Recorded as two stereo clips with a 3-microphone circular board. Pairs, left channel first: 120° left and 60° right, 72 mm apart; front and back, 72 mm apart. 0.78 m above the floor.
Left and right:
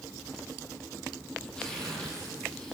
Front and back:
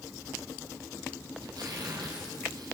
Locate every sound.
1.4 s tearing paper: 160° right, 5 m